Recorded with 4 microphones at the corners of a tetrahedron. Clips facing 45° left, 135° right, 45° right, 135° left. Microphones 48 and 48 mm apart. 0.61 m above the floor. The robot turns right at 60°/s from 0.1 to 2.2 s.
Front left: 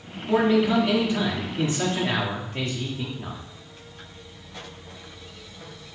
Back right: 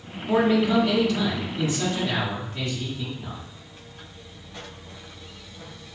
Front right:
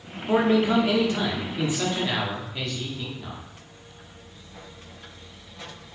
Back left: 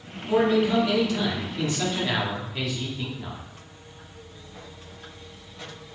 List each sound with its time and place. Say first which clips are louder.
0.3 s a man speaking: even, even; 60° right, 1.2 m; by 3.4 s 55° left, 1.2 m